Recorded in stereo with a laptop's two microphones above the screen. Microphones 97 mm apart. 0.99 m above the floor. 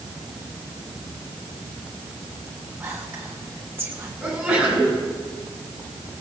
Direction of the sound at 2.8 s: 25° right (ahead or behind).